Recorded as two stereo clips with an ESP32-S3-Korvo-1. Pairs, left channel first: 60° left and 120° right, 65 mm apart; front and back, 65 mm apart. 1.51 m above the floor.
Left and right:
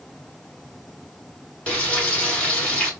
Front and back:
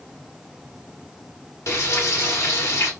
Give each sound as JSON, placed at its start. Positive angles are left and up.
{"t": 1.7, "sound": "frying", "azimuth_deg": 0, "distance_m": 1.5}